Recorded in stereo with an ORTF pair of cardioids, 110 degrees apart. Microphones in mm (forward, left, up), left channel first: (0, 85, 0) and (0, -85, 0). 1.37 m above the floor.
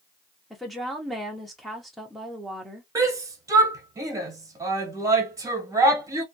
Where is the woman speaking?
Straight ahead, 0.6 m.